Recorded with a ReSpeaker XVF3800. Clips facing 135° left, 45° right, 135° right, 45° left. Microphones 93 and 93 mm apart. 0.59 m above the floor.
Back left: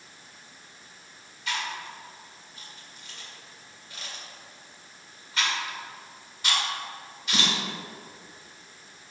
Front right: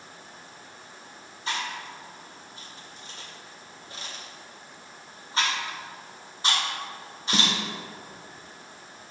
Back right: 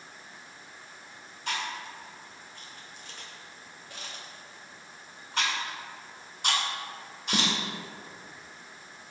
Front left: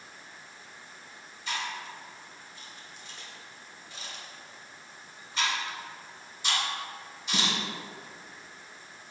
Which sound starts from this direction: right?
Chewing, at 1.5 s.